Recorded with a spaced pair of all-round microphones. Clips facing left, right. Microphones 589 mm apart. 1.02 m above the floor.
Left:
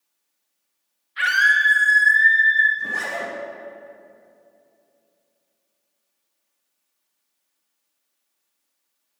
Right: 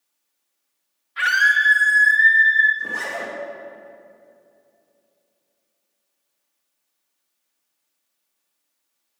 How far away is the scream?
About 1.7 m.